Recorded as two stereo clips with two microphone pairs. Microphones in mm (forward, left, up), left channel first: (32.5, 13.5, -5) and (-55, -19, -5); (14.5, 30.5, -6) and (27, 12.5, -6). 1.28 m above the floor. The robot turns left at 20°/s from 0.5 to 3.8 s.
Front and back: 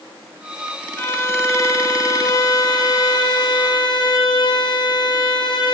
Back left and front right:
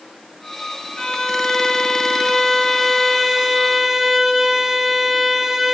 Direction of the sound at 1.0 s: 80° left.